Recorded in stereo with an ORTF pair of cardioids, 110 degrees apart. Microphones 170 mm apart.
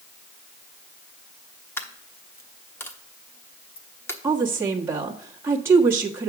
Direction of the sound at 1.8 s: 15° left.